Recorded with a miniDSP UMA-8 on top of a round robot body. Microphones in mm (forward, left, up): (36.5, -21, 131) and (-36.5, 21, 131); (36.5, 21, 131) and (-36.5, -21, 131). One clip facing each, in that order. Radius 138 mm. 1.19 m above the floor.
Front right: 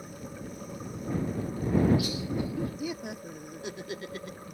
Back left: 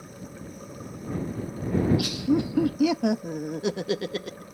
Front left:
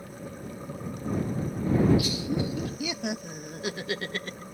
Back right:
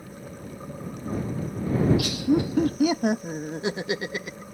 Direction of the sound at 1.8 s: Straight behind.